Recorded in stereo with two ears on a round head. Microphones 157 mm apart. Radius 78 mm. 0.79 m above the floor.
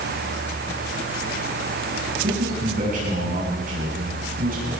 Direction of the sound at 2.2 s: 50° right (ahead or behind).